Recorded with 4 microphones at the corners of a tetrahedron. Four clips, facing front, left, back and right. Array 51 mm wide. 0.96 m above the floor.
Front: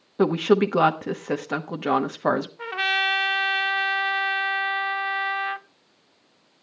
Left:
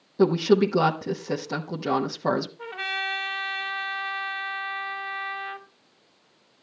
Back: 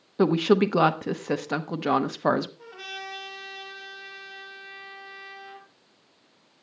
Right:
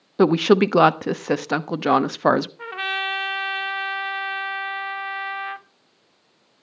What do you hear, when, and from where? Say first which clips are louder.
0.2 s a woman speaking: right 4 dB, front 1 dB; 85° right, 0.9 m
2.6 s a trumpet: right 4 dB, front 15 dB; 30° right, 0.8 m